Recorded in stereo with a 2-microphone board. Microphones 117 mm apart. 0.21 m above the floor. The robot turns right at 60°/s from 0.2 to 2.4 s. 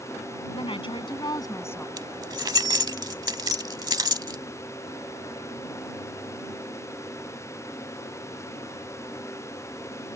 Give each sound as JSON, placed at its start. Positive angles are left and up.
{"t": 0.5, "sound": "a woman speaking", "azimuth_deg": 80}
{"t": 2.0, "sound": "keys jangling", "side_deg": -35}